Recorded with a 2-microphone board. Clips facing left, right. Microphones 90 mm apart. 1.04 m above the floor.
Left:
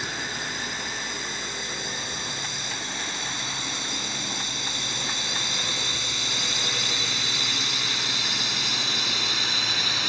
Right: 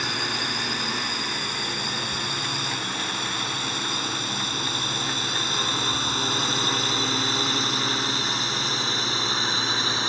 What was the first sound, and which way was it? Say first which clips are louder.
A drone: right 4 dB; 70° right (ahead or behind).